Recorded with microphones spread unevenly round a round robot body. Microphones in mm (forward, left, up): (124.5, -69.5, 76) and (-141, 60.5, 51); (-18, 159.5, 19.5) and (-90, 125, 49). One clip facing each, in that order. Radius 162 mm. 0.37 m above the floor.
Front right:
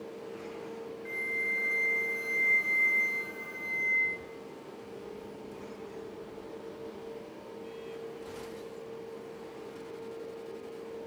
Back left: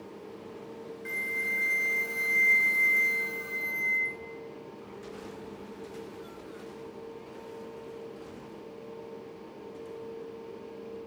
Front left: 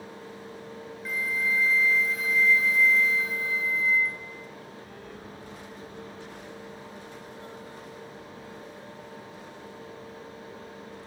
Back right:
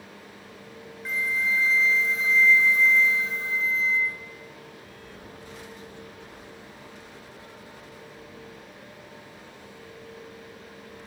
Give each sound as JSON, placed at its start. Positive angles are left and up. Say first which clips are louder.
{"t": 1.1, "sound": "a flute", "louder": "even, back right 2 dB", "azimuth_deg": 140, "distance_m": 1.4}